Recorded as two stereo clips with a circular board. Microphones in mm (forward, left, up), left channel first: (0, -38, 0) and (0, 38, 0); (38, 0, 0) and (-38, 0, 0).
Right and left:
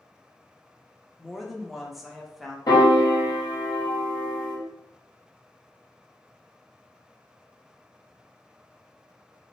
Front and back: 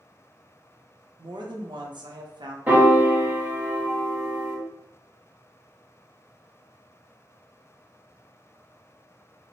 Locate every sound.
1.2 s a woman speaking: straight behind, 0.8 m
2.7 s a piano: 120° right, 1.5 m